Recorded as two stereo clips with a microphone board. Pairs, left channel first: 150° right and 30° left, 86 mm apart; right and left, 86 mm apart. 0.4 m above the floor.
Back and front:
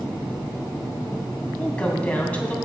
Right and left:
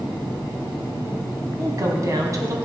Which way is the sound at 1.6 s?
135° left.